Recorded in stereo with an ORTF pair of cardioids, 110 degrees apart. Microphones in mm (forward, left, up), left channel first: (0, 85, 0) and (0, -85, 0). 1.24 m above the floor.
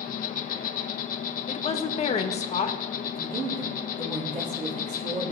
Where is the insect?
60° left, 0.9 m.